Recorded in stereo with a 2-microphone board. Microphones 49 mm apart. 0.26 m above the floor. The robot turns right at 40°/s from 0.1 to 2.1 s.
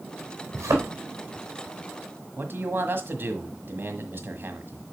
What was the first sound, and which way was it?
A thud, 80° right.